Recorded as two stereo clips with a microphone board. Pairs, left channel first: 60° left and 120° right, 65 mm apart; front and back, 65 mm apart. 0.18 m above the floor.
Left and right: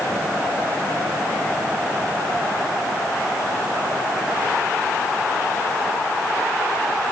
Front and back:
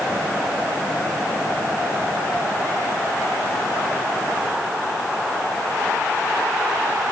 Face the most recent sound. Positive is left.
No sound to turn to.